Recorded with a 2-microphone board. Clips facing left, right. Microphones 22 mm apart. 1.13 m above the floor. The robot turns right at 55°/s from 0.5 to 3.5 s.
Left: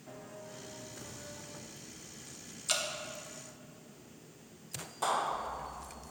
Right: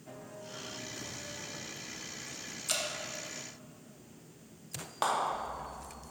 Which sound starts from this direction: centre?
Dripping, at 2.7 s.